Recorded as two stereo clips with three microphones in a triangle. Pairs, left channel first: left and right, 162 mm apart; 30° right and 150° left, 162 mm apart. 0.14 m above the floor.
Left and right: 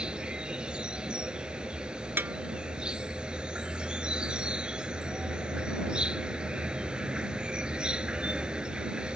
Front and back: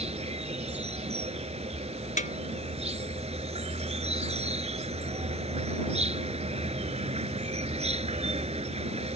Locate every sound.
0.0 s an insect: 175° right
2.2 s a snare drum: 15° right